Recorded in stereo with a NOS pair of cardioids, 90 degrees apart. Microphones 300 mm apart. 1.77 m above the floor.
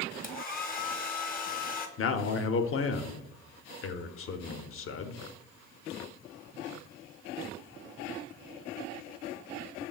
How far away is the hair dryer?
About 0.6 m.